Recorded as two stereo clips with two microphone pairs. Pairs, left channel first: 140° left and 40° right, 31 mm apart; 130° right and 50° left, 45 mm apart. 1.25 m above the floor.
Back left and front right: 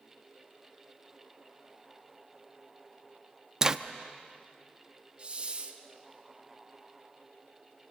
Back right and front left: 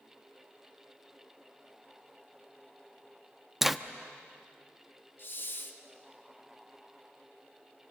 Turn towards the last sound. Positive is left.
turn(degrees=-95)